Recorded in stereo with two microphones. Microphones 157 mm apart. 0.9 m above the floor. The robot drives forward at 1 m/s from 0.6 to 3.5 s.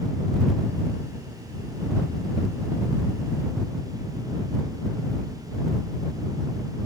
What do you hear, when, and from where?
Only background noise.